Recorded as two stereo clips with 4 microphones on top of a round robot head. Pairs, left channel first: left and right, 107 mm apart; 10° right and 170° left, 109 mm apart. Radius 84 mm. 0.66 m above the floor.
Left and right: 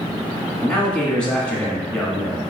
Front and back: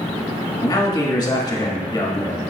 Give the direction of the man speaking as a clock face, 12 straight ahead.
11 o'clock.